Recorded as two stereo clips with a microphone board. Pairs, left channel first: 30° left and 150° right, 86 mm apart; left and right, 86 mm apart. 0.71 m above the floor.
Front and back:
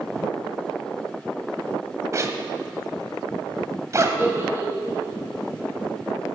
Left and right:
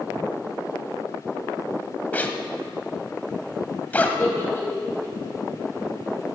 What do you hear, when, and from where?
2.1 s a zipper: 160° left, 1.2 m
4.2 s a giggle: 150° left, 3.5 m